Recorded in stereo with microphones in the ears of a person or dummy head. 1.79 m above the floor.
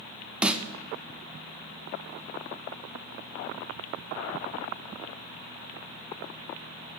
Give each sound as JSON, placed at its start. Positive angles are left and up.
{"t": 0.4, "sound": "a snare drum", "side_deg": -5, "distance_m": 1.0}